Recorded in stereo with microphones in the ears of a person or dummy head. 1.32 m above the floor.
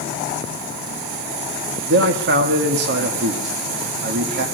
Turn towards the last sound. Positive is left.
turn(degrees=-60)  # may be behind; listen again after turning